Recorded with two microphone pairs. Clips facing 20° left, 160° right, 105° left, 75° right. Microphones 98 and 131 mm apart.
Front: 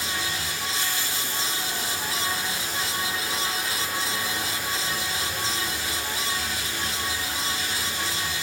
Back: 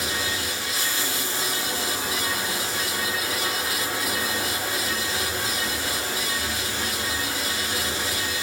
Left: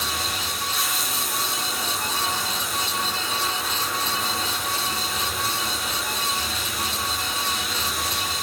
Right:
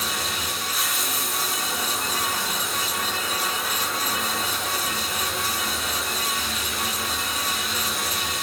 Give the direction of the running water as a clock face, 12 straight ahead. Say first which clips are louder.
Back 2 dB, even; 5 o'clock.